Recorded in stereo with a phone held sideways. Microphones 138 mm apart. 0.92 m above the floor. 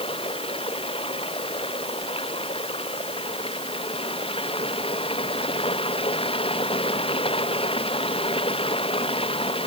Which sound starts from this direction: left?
Running water, at 0.0 s.